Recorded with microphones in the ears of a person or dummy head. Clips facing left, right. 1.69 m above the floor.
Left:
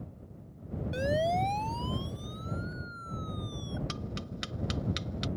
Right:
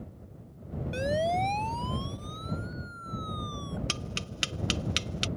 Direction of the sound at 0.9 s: 5° left (ahead or behind).